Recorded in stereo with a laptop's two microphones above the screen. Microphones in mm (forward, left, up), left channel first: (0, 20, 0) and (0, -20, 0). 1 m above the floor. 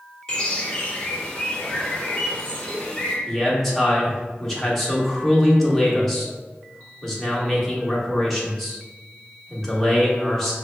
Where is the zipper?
No zipper in this recording.